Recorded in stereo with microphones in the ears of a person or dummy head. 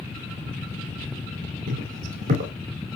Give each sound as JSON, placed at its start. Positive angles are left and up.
{"t": 1.7, "sound": "footsteps", "side_deg": -45, "distance_m": 3.0}